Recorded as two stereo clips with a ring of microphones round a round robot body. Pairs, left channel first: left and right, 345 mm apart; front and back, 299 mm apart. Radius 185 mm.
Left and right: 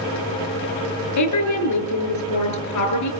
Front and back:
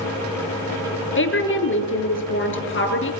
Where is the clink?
I don't hear a clink.